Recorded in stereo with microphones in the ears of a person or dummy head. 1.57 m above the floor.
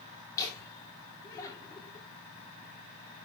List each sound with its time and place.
0.4 s laughter: 20° left (ahead or behind), 1.4 m